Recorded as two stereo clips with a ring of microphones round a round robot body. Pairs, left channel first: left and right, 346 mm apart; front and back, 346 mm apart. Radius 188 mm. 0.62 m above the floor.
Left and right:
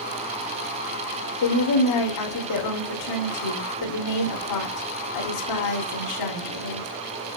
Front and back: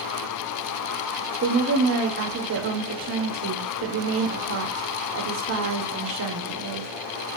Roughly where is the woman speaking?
Behind left.